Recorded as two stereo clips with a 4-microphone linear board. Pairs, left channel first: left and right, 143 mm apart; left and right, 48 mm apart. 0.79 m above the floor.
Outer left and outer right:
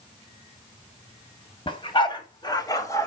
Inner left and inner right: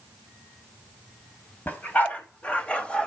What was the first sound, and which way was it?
A dog barking, 40° left (ahead or behind).